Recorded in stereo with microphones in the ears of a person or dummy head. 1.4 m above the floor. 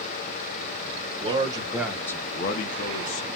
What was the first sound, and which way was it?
A man speaking, 30° right (ahead or behind).